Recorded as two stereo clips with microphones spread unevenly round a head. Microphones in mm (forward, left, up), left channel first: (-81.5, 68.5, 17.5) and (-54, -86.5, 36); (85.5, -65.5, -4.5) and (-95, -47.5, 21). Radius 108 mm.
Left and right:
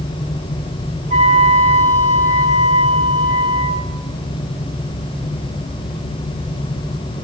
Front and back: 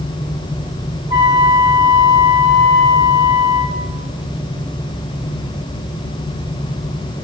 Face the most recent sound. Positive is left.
turn(degrees=-120)